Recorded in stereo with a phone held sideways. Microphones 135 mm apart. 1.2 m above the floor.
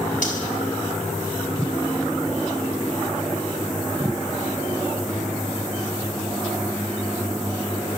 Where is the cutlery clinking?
80° left, 4.5 m.